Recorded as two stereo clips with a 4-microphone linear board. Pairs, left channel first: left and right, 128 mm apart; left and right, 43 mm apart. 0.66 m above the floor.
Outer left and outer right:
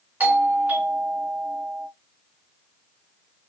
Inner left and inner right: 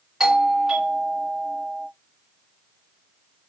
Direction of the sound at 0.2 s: 10° right (ahead or behind).